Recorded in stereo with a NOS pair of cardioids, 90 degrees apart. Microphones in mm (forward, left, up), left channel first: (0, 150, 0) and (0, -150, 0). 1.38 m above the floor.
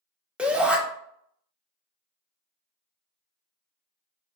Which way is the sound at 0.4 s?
5° right.